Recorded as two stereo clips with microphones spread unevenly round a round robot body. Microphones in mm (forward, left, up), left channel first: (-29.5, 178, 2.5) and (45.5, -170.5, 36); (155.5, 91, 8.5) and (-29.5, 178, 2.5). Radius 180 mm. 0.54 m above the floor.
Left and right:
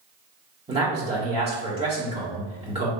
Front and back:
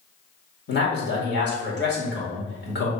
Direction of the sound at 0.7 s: 5° right.